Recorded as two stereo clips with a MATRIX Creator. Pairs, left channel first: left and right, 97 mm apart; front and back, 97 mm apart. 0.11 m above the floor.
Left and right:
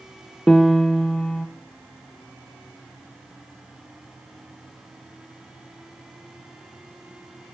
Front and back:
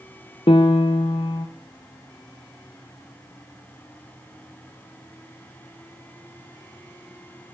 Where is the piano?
5° left, 0.6 m.